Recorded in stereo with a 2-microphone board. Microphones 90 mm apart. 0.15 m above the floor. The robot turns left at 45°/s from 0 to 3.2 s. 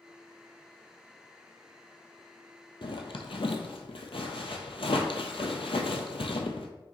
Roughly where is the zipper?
Left.